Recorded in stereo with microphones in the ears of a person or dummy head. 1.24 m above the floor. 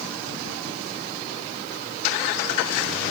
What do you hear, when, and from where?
Only background noise.